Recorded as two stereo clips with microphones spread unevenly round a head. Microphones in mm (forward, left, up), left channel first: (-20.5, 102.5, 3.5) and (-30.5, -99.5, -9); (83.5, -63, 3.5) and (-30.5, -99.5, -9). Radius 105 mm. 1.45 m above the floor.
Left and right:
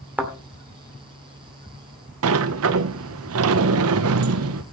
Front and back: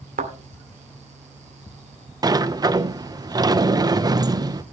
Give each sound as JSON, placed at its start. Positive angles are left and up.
{"t": 0.2, "sound": "a thud", "azimuth_deg": -175, "distance_m": 2.0}
{"t": 2.2, "sound": "a sliding door", "azimuth_deg": -100, "distance_m": 0.9}